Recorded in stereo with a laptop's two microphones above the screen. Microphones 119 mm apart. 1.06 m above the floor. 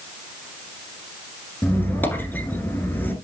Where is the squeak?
15° left (ahead or behind), 1.5 m.